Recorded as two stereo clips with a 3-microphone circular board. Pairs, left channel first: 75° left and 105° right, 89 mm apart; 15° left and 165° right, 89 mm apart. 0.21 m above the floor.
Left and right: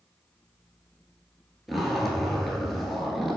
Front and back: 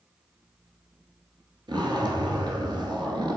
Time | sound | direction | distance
1.7 | a zipper | 165° left | 1.3 m